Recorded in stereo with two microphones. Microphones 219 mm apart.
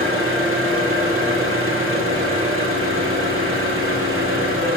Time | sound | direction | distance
0.0 | an engine running | 75° right (ahead or behind) | 1.9 m